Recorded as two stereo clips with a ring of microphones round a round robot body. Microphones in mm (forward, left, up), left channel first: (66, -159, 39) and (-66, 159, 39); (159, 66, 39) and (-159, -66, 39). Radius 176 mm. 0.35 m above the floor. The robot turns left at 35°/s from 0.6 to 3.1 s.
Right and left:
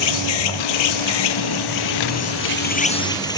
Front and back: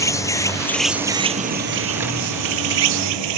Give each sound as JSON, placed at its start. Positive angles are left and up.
{"t": 0.0, "sound": "an insect", "azimuth_deg": -60}